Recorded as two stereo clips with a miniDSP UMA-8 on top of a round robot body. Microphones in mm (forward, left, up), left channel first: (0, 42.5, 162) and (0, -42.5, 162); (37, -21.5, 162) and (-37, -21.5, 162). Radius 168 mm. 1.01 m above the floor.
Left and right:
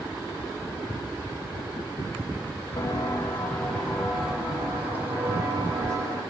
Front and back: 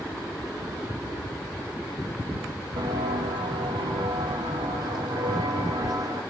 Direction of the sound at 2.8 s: 150° left.